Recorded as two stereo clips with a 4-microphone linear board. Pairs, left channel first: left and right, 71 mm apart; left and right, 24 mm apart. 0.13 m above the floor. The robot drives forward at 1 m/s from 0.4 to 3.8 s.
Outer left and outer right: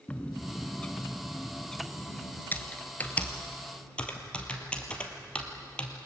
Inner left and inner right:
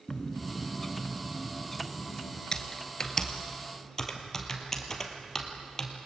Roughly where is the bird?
Centre.